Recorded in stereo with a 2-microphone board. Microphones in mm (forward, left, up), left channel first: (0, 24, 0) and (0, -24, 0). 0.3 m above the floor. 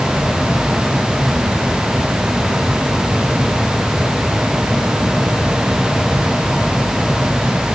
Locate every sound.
Only background noise.